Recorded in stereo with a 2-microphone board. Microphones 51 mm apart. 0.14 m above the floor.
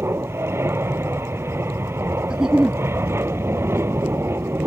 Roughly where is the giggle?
Centre.